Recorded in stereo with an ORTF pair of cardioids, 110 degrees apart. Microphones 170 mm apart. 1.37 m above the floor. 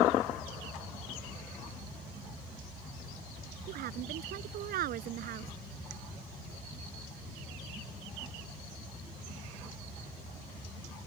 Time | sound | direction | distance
3.7 | a woman speaking | 70° right | ?